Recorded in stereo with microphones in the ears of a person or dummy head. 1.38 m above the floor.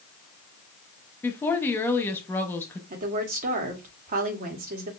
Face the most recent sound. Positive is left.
turn(degrees=-45)  # may be behind; listen again after turning